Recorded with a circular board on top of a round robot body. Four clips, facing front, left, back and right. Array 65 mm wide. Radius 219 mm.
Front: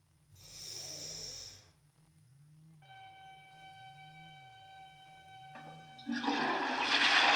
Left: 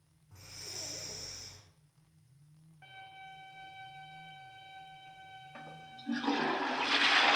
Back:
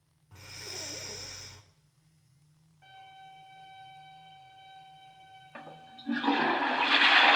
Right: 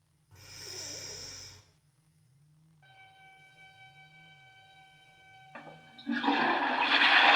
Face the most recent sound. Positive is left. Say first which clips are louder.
# right 2 dB, back 8 dB
turn(degrees=-140)